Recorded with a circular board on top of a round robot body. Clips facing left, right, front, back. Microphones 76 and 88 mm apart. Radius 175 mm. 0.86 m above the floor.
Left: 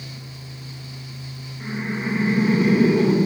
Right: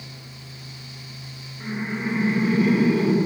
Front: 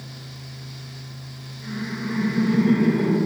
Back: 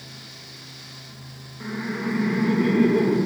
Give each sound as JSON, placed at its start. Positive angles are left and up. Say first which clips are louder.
{"t": 1.6, "sound": "laughter", "louder": "left 1 dB, back 2 dB", "azimuth_deg": -170, "distance_m": 1.5}